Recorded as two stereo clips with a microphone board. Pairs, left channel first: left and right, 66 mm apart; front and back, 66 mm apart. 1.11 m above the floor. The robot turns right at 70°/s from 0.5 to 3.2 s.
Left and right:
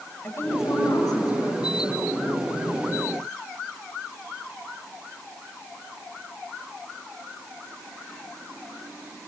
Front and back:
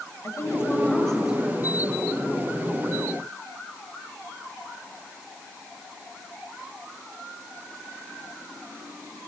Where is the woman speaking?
40° left, 6.5 m; by 2.1 s 155° left, 6.5 m.